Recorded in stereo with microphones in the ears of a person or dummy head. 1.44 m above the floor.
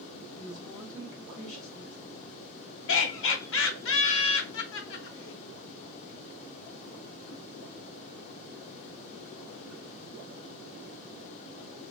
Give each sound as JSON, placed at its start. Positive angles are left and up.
{"t": 0.3, "sound": "a woman speaking", "side_deg": 15, "distance_m": 2.0}
{"t": 2.9, "sound": "laughter", "side_deg": 60, "distance_m": 0.9}